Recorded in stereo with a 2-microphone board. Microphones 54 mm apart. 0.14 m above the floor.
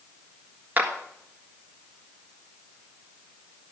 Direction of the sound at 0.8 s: 30° right (ahead or behind).